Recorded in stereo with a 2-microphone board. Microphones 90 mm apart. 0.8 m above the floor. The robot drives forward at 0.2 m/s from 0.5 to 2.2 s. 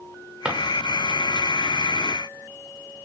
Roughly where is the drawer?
Centre.